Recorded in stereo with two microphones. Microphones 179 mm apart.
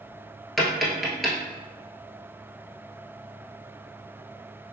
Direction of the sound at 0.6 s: Centre (ahead or behind).